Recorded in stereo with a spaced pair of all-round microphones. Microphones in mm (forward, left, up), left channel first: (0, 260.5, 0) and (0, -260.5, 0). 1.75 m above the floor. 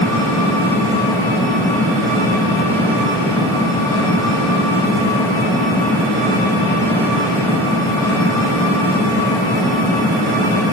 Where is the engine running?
5° left (ahead or behind), 5.5 m.